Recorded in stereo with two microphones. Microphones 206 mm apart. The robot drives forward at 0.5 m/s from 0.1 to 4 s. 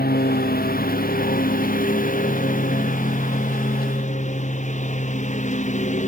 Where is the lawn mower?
50° left (ahead or behind); by 6.1 s 35° left (ahead or behind).